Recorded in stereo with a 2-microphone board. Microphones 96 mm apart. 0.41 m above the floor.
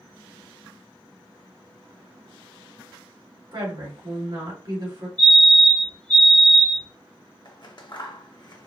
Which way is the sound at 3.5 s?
60° right (ahead or behind).